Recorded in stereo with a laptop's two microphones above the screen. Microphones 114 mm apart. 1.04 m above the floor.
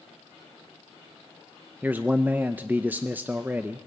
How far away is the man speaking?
About 0.5 m.